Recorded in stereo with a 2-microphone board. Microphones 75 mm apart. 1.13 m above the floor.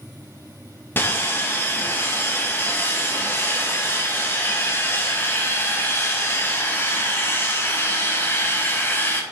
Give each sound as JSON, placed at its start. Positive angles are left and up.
{"t": 1.0, "sound": "sawing", "side_deg": 30, "distance_m": 1.6}